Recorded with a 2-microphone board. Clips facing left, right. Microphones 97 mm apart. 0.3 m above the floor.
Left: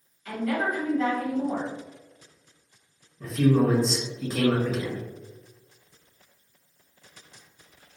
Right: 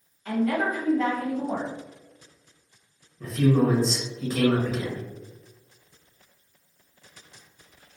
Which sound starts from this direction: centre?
A man speaking, at 3.2 s.